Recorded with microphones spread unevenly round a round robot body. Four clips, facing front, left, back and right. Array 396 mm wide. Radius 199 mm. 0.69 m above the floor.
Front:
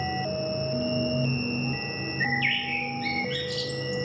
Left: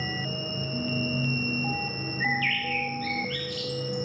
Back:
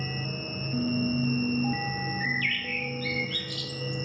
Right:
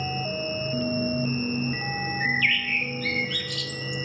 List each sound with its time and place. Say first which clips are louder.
0.0 s an insect: right 4 dB, front 7 dB; 170° left, 3.5 m
2.2 s a bird: right 1 dB, front 3 dB; 40° right, 0.7 m